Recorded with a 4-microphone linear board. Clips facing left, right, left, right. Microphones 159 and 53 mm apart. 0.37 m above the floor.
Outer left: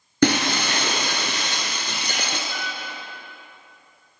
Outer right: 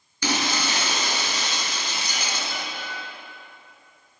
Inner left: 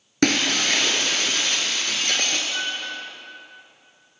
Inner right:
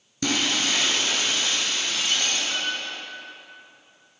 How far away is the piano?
About 2 m.